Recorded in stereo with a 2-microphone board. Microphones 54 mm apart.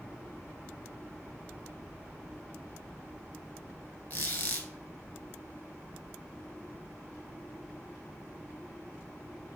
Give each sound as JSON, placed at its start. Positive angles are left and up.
{"t": 4.1, "sound": "a squeak", "side_deg": 35, "distance_m": 1.1}